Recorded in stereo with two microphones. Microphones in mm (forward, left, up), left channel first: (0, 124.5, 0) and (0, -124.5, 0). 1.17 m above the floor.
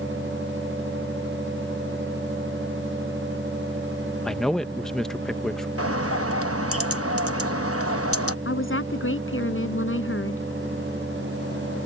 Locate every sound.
4.2 s a man speaking: centre (ahead or behind)
5.8 s a bird: 65° right (ahead or behind)
8.4 s a woman speaking: 55° left (ahead or behind)